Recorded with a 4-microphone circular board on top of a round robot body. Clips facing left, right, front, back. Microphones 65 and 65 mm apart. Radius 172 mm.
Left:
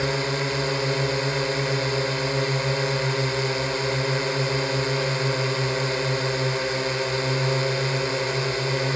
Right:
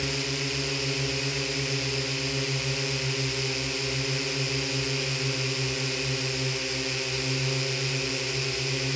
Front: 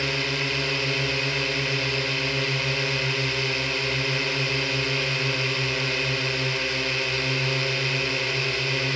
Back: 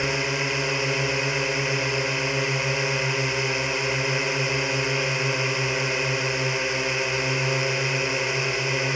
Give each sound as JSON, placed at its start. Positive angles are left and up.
{"t": 0.0, "sound": "a drone", "azimuth_deg": 110}